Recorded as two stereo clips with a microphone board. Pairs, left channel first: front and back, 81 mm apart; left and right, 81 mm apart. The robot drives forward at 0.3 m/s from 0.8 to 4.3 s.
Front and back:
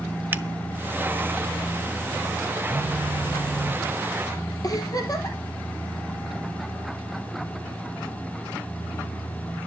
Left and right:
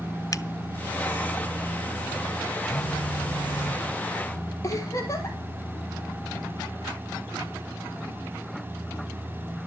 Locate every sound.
0.3 s a finger snap: 120° left, 0.8 m
2.7 s a phone buzzing: 55° left, 3 m; by 3.8 s 60° left, 2.5 m
4.6 s a giggle: 40° left, 2.5 m